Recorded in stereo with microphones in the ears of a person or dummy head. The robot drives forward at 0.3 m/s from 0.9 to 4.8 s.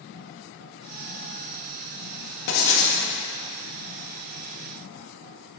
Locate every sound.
2.5 s writing: 65° left (ahead or behind), 1.2 m; by 3.0 s 75° left (ahead or behind), 1.2 m